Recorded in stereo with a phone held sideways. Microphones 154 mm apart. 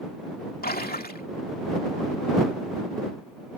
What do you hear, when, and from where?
0.6 s a splash: 85° left